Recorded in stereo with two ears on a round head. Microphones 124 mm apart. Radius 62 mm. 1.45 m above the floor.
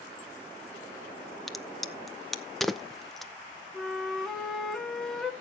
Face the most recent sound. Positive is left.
turn(degrees=0)  # may be behind; listen again after turning